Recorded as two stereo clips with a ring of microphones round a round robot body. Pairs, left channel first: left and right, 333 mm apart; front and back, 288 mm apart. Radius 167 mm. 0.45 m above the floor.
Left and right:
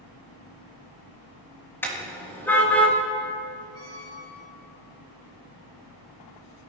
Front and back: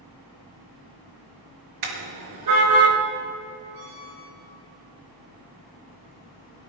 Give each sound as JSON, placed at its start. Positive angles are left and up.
{"t": 1.8, "sound": "a car horn", "azimuth_deg": 175, "distance_m": 4.5}
{"t": 3.7, "sound": "a squeak", "azimuth_deg": -135, "distance_m": 4.0}